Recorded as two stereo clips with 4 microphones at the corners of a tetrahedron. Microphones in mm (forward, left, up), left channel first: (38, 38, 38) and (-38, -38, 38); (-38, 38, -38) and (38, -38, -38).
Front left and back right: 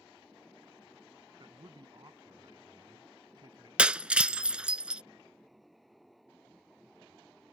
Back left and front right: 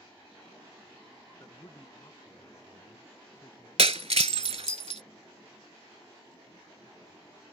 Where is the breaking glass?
55° right.